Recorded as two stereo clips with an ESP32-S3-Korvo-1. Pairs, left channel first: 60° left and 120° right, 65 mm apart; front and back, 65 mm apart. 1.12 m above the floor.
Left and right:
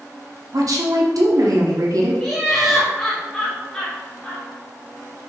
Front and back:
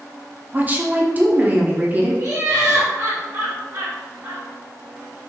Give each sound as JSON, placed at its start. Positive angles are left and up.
{"t": 0.5, "sound": "a woman speaking", "azimuth_deg": -120, "distance_m": 0.7}
{"t": 2.2, "sound": "laughter", "azimuth_deg": 145, "distance_m": 1.1}